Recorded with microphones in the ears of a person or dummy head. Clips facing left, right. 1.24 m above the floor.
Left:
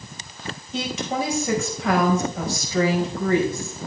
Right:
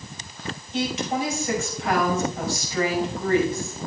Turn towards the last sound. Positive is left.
turn(degrees=85)